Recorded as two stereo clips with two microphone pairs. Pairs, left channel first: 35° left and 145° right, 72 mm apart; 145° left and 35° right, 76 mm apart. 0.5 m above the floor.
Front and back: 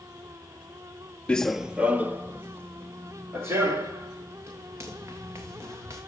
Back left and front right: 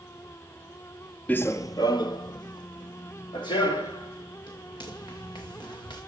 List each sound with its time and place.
1.3 s running footsteps: 95° left, 0.5 m; by 6.0 s 160° left, 5 m